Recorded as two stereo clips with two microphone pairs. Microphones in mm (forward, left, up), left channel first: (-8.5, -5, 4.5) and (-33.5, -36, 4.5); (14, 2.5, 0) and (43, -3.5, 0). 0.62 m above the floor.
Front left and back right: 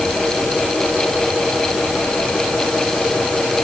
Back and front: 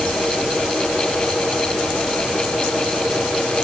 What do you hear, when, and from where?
Only background noise.